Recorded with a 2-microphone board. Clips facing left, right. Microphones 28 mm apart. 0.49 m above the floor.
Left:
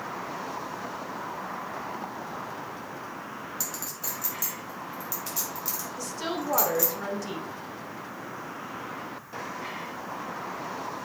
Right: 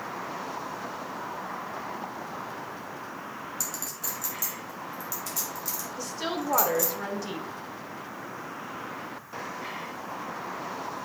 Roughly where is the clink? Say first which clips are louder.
Even; centre.